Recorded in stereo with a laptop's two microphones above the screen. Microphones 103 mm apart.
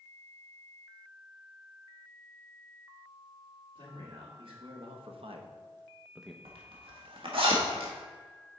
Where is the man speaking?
55° right (ahead or behind), 2.5 m; by 6.3 s 5° left (ahead or behind), 0.7 m.